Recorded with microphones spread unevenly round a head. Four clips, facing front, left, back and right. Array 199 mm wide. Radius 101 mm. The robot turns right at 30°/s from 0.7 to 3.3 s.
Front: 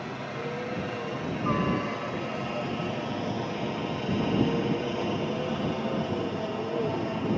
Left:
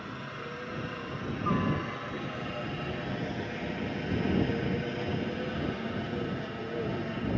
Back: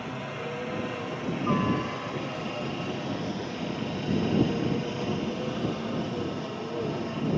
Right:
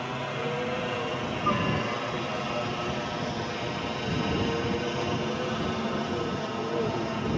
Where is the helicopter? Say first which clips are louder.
Right 9 dB, even; 110° right; by 7.4 s 65° right.